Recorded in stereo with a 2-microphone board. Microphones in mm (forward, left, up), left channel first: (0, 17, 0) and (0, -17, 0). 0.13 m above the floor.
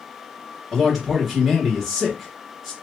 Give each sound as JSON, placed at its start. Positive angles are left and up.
{"t": 0.7, "sound": "a man speaking", "side_deg": -5, "distance_m": 1.8}